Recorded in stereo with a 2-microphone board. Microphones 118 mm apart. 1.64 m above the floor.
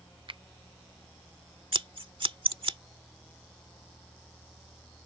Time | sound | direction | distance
0.3 | a finger snap | 45° right (ahead or behind) | ?
1.7 | scissors | 50° right (ahead or behind) | ?